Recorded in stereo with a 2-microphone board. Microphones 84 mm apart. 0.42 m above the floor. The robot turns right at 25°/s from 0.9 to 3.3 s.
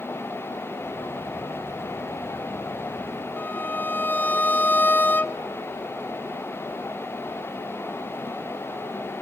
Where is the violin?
20° left (ahead or behind), 0.6 m.